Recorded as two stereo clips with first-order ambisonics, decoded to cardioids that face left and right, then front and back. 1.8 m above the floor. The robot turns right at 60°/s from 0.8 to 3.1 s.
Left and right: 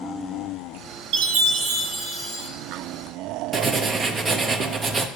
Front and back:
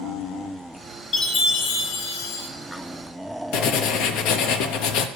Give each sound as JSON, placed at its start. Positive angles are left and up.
{"t": 1.1, "sound": "a chime", "azimuth_deg": -85, "distance_m": 1.9}
{"t": 3.5, "sound": "writing", "azimuth_deg": -20, "distance_m": 0.7}